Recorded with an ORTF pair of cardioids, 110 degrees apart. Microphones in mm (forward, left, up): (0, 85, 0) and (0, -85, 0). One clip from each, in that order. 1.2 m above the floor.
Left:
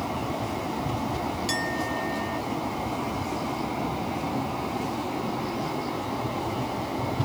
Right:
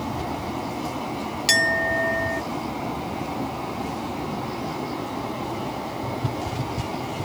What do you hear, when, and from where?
1.5 s a clink: 60° right